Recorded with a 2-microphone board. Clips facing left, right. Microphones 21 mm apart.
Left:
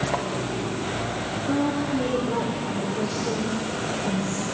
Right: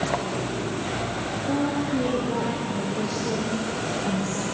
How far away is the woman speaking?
About 4.5 m.